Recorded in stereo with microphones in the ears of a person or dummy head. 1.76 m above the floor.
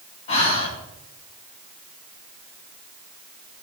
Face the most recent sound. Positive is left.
turn(degrees=35)  # may be behind; listen again after turning